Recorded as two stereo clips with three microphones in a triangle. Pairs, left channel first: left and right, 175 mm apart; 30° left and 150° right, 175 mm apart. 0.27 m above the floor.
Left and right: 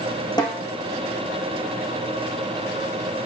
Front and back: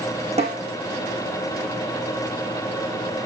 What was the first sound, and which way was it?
A snare drum, 155° left.